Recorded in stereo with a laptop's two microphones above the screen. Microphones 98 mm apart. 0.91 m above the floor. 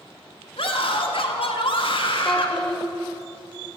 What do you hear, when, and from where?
0.6 s a scream: 65° left (ahead or behind), 1.5 m
2.2 s a child speaking: 5° left (ahead or behind), 1.7 m